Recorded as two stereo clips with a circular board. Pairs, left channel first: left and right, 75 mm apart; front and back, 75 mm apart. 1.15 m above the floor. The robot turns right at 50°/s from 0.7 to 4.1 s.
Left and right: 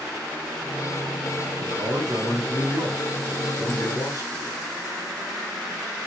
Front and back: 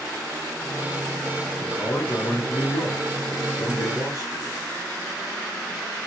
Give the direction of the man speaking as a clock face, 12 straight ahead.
3 o'clock.